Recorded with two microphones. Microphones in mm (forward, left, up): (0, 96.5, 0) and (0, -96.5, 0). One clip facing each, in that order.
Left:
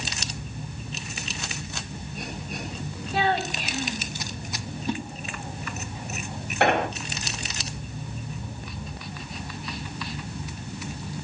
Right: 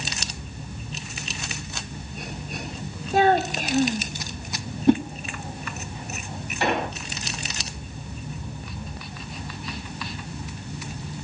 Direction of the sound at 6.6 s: 65° left (ahead or behind).